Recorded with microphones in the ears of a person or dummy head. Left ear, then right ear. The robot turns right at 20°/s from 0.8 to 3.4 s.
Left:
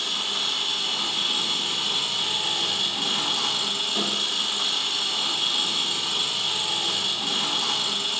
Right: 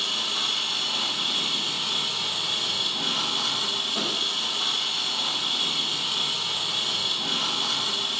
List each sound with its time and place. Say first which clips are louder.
0.0 s an engine running: even; straight ahead, 1.0 m; by 8.2 s 55° left, 1.0 m